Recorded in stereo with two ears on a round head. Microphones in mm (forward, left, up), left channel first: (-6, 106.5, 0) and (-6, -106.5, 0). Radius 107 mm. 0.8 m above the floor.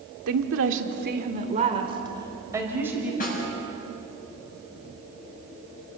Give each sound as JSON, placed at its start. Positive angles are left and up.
{"t": 0.3, "sound": "a woman speaking", "side_deg": -75, "distance_m": 2.0}
{"t": 3.2, "sound": "a snare drum", "side_deg": 40, "distance_m": 7.0}